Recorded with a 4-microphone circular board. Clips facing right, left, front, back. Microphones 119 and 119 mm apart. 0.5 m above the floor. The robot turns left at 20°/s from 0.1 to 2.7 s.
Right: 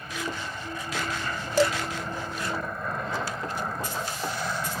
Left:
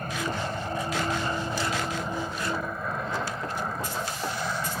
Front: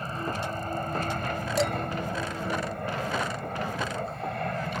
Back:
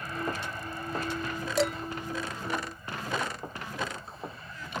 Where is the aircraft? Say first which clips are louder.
Left 4 dB, front 2 dB; 55° left; by 4.8 s straight ahead.